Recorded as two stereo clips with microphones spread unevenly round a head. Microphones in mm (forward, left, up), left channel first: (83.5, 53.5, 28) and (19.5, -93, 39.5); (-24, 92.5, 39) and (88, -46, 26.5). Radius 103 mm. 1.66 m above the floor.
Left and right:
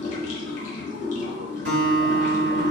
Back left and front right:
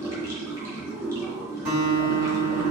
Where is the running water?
25° left, 1.2 m.